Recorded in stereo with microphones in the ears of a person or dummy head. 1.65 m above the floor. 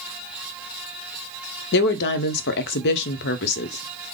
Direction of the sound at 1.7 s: 55° left (ahead or behind).